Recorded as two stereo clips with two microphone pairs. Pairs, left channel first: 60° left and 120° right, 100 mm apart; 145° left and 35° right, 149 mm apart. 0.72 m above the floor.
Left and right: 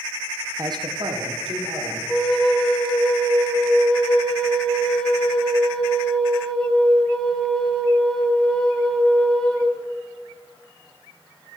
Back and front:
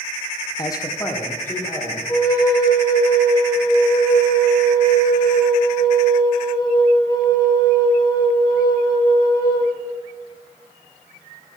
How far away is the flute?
About 1.1 m.